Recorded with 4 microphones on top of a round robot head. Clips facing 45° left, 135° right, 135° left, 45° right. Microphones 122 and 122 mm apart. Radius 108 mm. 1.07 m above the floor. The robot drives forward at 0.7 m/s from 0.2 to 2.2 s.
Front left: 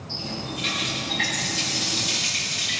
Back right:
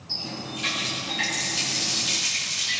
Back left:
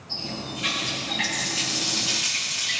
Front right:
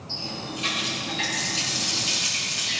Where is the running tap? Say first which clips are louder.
Front left 2 dB, back left 1 dB; 100° right, 9 m; by 2.8 s 110° right, 9.5 m.